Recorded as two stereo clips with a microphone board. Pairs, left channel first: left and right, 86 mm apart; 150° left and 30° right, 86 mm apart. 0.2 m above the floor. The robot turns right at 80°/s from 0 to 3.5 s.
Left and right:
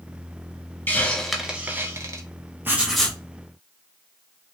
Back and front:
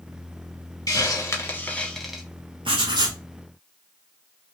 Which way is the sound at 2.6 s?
25° right.